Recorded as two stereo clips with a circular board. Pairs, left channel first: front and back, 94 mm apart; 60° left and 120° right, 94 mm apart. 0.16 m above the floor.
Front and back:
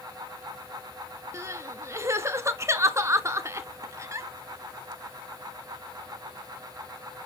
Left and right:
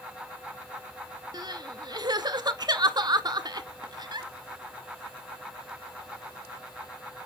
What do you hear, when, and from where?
1.3 s crying: 135° right, 0.6 m